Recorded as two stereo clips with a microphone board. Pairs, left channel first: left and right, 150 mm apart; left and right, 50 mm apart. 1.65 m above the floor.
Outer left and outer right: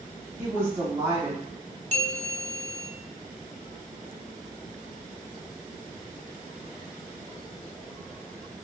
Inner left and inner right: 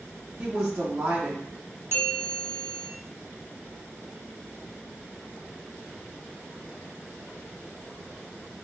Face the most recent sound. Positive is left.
turn(degrees=-50)  # may be behind; listen again after turning